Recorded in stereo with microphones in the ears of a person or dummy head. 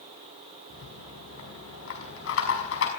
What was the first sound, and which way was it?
A rattle, 75° left (ahead or behind).